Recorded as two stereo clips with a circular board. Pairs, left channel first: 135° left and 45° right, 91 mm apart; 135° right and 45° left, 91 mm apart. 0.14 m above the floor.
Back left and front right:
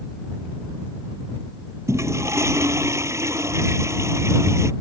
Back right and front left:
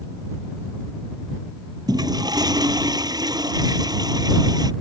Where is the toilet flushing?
10° left.